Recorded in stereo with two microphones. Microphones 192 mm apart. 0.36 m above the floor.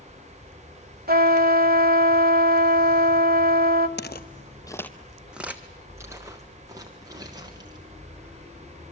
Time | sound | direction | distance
1.1 | a trumpet | 55° right (ahead or behind) | 1.2 m
4.0 | footsteps | 65° left (ahead or behind) | 0.7 m